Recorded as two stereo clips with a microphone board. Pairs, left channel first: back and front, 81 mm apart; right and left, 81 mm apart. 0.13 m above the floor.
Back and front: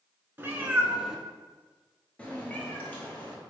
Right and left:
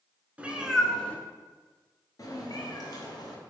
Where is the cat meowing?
35° left, 0.6 m; by 3.4 s 115° right, 1.4 m.